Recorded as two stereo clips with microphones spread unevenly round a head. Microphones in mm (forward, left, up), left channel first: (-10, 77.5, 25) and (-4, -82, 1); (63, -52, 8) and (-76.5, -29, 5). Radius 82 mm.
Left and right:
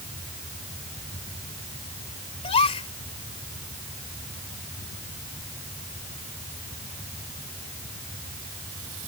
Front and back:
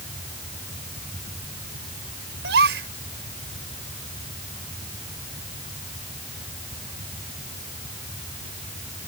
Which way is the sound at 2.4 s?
150° left.